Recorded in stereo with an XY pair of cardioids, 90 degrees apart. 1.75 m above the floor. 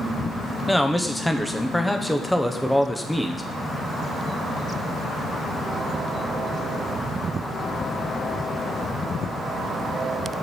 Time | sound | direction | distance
0.7 | a man speaking | 5° left | 1.1 m